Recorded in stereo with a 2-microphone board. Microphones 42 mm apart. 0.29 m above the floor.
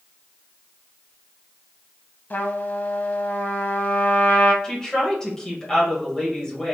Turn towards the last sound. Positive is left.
turn(degrees=20)  # may be behind; listen again after turning